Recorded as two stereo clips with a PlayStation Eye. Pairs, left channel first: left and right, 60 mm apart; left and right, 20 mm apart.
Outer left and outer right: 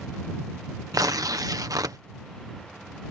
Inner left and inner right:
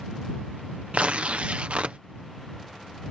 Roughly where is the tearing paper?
Right.